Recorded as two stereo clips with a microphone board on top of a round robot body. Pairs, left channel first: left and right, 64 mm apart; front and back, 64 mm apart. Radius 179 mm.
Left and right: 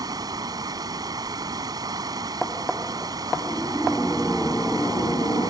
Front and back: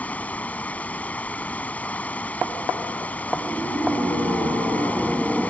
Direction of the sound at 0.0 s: 65° right.